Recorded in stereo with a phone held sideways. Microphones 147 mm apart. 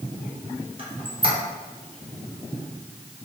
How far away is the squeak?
About 0.8 m.